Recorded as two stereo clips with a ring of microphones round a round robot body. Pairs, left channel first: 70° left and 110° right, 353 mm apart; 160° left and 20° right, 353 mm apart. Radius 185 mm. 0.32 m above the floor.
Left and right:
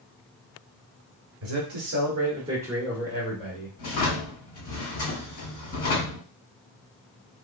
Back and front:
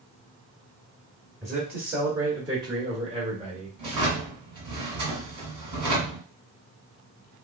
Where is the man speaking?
110° right, 1.6 m; by 3.7 s 35° left, 1.5 m.